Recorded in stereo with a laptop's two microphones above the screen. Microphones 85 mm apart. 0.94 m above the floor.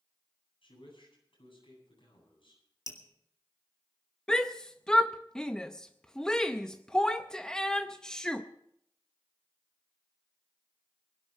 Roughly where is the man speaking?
Left.